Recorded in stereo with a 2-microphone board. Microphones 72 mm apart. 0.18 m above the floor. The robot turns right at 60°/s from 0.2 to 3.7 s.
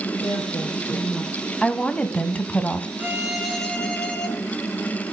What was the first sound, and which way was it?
A woman speaking, 80° left.